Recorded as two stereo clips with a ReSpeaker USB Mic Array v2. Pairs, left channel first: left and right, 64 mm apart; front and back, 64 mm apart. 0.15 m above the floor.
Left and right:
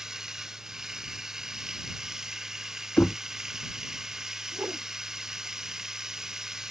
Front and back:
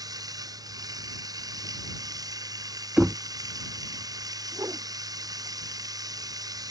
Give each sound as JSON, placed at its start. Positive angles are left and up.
{"t": 0.0, "sound": "running water", "azimuth_deg": -170}
{"t": 3.0, "sound": "knocking", "azimuth_deg": 120}
{"t": 4.5, "sound": "a whoosh", "azimuth_deg": -140}